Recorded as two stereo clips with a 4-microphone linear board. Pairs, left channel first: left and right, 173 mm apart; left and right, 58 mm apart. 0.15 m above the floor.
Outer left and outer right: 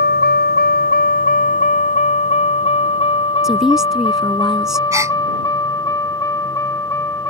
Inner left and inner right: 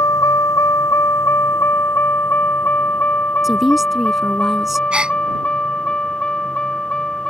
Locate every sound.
0.0 s a vehicle: 75° left (ahead or behind); by 7.3 s 15° left (ahead or behind)
3.4 s a woman speaking: 5° right (ahead or behind)
4.9 s a gasp: 20° right (ahead or behind)